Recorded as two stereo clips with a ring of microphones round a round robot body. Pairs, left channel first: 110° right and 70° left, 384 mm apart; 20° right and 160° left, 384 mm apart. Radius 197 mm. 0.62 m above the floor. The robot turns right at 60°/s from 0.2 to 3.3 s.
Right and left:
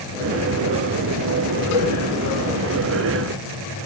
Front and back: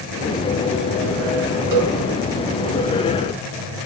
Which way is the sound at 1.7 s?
160° right.